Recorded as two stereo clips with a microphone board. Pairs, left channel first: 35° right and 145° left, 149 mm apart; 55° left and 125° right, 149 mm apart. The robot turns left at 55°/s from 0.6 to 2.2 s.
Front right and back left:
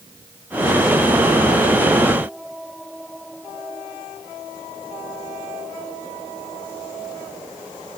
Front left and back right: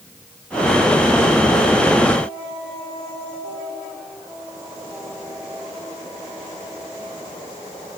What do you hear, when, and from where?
Only background noise.